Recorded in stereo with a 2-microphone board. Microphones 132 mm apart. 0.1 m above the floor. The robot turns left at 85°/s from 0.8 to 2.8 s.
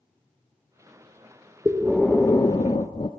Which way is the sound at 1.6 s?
155° right.